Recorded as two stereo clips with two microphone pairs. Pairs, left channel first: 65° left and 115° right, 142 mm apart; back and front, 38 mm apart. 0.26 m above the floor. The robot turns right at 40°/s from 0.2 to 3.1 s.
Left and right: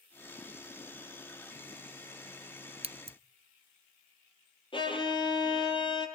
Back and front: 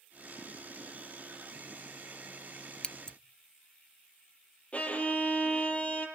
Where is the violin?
120° left, 3.5 m.